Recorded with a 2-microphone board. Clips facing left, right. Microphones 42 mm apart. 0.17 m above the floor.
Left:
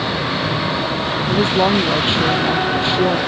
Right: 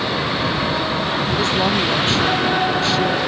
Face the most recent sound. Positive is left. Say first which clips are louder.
# left 5 dB
turn(degrees=20)  # may be behind; listen again after turning